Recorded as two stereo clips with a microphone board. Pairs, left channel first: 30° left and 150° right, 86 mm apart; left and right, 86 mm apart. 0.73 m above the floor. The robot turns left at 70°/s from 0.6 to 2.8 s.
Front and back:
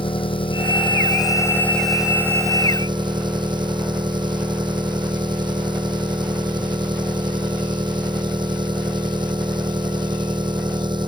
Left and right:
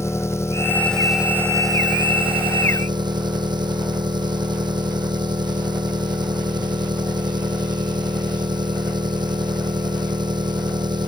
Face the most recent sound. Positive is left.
turn(degrees=-120)